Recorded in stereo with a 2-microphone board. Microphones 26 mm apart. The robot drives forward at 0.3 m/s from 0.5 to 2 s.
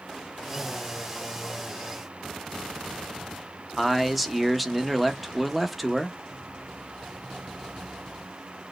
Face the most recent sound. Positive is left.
turn(degrees=-5)  # may be behind; listen again after turning